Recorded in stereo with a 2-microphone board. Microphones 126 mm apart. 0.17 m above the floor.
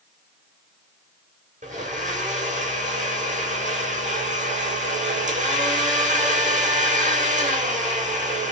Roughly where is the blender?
Right.